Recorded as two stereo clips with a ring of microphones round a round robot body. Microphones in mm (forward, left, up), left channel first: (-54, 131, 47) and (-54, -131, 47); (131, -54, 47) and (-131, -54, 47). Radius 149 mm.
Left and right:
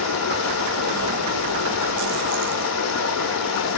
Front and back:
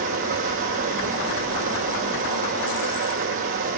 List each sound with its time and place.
0.0 s running water: 115° left, 2.5 m